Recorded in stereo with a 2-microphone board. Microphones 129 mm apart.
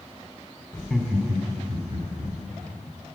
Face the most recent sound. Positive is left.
turn(degrees=-50)  # may be behind; listen again after turning